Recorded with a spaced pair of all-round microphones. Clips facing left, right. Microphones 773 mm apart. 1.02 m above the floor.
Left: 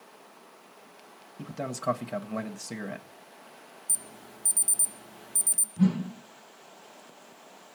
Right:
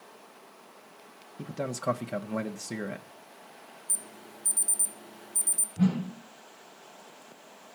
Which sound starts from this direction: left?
An alarm, at 3.9 s.